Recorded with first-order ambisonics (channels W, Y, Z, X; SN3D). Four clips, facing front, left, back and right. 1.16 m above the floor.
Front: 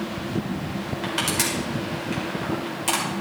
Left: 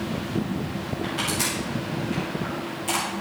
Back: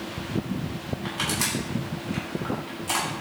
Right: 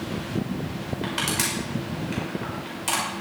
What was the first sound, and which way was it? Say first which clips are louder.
Crushing: right 1 dB, front 3 dB; 35° right.